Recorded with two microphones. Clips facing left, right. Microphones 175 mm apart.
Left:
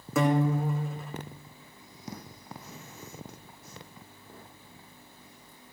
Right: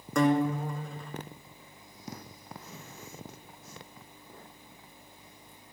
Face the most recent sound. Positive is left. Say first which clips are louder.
# even
turn(degrees=5)  # may be behind; listen again after turning